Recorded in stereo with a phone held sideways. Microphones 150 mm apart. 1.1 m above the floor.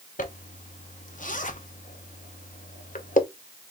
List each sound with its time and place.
0.2 s a zipper: 60° left (ahead or behind), 0.7 m